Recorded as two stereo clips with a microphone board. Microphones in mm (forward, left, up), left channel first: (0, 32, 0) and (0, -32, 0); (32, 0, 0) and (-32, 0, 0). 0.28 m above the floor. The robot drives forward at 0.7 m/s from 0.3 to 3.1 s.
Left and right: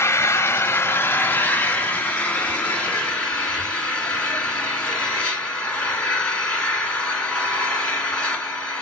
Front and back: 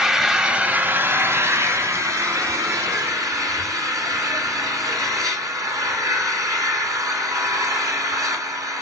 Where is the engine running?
100° left, 0.9 m; by 8.8 s 165° left, 2.5 m.